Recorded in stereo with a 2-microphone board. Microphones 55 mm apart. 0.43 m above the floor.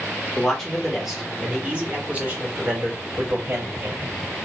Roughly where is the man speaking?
Centre.